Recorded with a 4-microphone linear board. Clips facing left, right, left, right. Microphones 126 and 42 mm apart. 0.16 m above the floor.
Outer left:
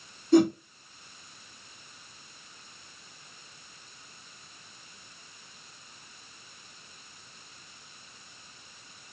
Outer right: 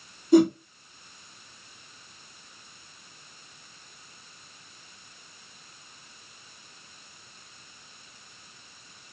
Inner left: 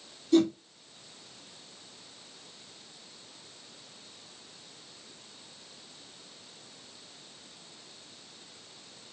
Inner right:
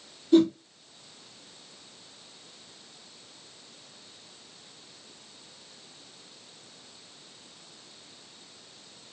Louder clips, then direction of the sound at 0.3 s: Outer right 2 dB, inner right 3 dB; 15° right (ahead or behind).